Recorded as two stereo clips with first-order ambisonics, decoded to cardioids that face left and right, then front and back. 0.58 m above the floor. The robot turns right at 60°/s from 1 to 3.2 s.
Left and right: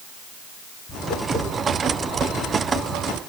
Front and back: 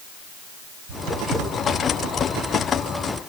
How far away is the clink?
No clink in this recording.